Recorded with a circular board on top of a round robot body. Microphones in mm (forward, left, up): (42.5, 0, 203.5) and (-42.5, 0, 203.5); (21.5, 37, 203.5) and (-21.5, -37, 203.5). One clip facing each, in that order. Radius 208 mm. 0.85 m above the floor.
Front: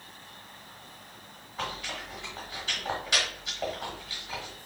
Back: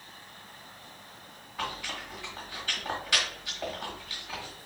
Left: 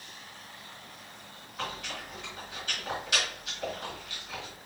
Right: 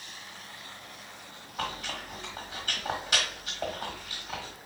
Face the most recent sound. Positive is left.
turn(degrees=-70)